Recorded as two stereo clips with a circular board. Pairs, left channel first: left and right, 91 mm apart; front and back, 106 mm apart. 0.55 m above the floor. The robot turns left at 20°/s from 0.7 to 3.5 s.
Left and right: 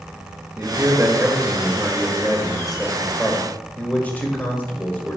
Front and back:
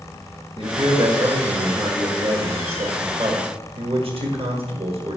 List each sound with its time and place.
0.6 s a man speaking: 145° right, 1.7 m; by 5.2 s 160° left, 1.7 m